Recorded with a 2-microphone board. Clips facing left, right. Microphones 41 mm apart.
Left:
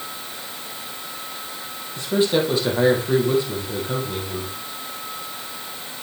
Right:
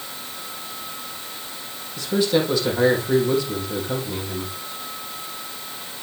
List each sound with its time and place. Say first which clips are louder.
2.0 s a man speaking: left 1 dB; 30° left (ahead or behind), 3 m